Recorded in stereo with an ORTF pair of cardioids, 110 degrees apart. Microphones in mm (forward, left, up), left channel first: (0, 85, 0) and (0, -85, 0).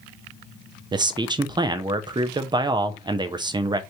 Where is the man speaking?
25° right, 0.6 m.